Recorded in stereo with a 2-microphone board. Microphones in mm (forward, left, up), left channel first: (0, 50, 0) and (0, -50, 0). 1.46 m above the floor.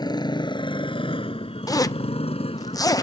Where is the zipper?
35° left (ahead or behind).